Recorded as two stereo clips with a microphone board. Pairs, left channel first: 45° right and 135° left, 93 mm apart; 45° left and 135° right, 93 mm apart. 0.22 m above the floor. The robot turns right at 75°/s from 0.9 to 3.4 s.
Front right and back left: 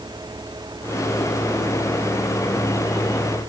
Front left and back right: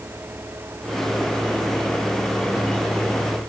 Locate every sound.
Only background noise.